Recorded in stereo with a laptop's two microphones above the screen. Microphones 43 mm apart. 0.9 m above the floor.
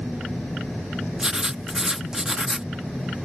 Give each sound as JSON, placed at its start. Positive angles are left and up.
{"t": 1.2, "sound": "writing", "side_deg": -15}